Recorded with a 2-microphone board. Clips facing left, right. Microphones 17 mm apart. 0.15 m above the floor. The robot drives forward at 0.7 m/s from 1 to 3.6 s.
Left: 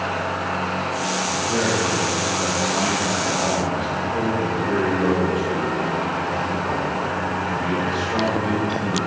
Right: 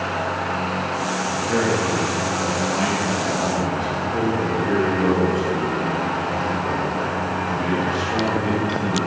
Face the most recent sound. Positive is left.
turn(degrees=-35)  # may be behind; listen again after turning